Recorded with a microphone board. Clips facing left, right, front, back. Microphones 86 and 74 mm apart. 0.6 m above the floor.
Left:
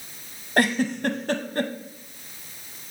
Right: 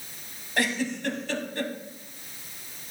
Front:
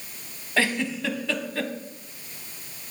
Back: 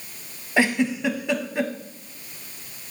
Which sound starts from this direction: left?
A giggle, at 0.6 s.